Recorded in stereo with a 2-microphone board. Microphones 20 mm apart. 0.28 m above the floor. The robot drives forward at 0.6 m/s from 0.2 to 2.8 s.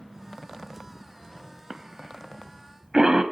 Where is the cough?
40° right (ahead or behind), 1.1 m; by 3.2 s 35° right (ahead or behind), 1.3 m.